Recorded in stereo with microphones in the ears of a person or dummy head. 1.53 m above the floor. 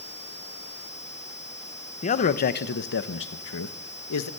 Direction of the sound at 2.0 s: 35° left (ahead or behind).